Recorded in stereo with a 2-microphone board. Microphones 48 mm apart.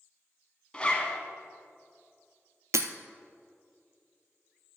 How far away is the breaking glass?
About 0.6 m.